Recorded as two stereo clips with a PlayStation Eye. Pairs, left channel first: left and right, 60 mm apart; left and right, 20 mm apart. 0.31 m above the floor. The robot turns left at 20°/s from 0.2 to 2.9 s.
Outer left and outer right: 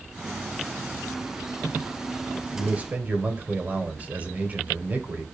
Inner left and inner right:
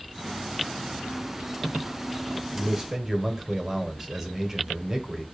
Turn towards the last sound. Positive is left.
turn(degrees=-25)  # may be behind; listen again after turning